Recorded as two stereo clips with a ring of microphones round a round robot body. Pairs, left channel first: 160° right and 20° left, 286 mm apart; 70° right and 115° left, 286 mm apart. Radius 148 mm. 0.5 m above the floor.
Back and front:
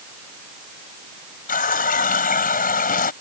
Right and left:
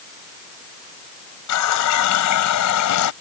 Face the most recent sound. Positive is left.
turn(degrees=-95)